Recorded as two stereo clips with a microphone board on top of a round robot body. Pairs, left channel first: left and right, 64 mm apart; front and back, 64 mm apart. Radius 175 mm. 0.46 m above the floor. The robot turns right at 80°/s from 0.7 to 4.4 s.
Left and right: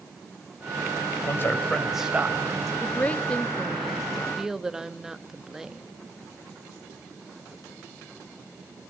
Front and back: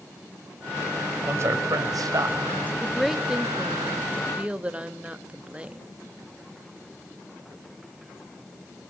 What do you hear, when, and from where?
1.3 s a man speaking: 130° left, 3.5 m; by 2.7 s 115° right, 3.5 m
2.8 s a woman speaking: 75° left, 1.2 m; by 5.8 s 155° right, 1.2 m